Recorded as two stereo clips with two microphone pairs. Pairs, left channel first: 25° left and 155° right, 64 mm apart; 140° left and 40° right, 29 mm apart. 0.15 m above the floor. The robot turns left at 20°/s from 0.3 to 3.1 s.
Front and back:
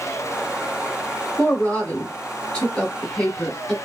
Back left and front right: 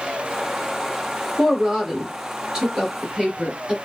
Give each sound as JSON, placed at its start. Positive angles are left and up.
{"t": 1.4, "sound": "a woman speaking", "azimuth_deg": -5, "distance_m": 1.4}